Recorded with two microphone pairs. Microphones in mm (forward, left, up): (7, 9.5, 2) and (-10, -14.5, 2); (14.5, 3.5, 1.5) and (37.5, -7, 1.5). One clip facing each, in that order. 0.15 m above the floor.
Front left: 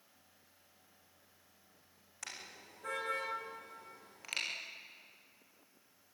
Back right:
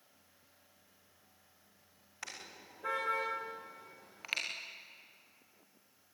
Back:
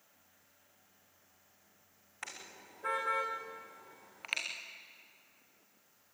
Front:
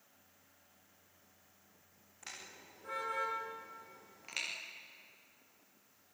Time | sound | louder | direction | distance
2.2 | a car horn | back right 1 dB, back 3 dB | 165° left | 6 m